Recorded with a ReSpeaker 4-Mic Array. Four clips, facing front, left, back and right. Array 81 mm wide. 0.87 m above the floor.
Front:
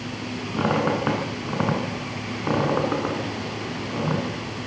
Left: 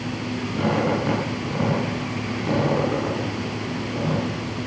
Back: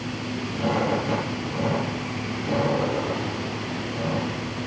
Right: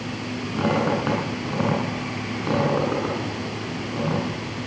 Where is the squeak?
15° right, 7 m.